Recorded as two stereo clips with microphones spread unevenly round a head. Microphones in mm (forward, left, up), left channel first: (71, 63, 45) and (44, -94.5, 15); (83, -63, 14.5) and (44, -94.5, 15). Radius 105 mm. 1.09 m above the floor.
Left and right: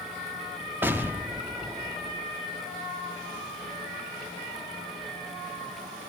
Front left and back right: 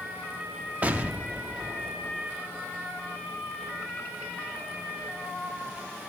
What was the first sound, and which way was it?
An explosion, 170° left.